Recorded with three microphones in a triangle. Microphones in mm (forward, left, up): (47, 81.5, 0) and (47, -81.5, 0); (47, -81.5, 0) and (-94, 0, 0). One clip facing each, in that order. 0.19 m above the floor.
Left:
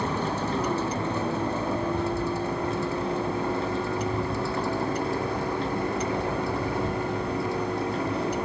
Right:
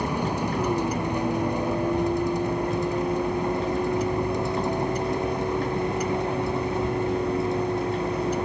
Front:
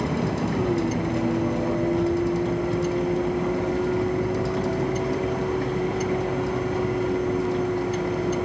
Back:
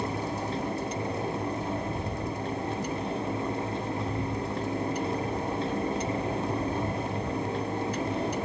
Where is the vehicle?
15° right; by 8.5 s 20° right.